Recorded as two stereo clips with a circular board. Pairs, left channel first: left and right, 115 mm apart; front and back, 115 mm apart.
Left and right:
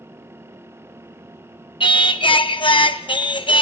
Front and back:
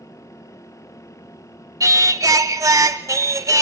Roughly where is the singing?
Behind left.